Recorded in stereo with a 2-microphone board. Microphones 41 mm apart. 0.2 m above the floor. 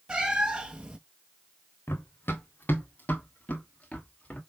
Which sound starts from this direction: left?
Running footsteps, at 1.9 s.